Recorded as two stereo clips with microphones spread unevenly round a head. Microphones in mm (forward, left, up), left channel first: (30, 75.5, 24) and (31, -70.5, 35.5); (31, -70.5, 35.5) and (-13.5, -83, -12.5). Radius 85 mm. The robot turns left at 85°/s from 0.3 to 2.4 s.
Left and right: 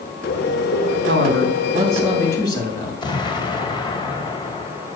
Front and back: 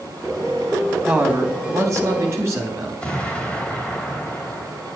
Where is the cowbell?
No cowbell in this recording.